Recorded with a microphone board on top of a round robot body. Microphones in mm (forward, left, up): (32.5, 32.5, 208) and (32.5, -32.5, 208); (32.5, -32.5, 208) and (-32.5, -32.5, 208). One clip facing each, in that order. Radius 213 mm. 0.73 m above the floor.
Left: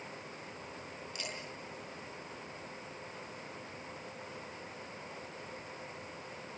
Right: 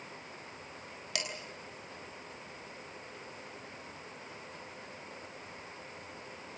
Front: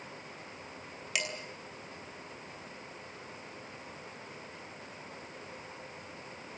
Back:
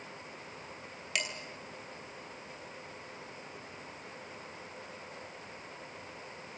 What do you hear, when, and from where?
1.1 s dishes clattering: 85° right, 6 m